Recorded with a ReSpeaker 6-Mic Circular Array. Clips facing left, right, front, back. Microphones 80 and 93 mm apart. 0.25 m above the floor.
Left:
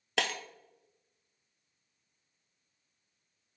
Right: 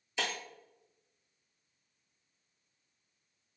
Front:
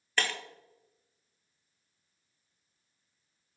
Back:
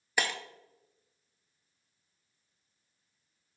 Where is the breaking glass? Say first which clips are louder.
Left 4 dB, even; 100° left, 0.6 m.